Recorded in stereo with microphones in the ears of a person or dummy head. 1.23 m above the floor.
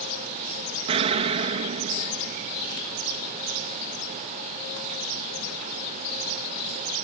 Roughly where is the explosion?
Right.